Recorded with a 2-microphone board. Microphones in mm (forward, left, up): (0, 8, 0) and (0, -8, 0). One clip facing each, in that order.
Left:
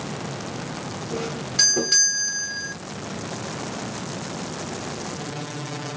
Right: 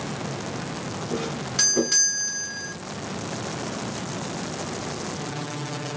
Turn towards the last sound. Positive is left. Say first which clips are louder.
# left 2 dB
turn(degrees=-10)  # may be behind; listen again after turning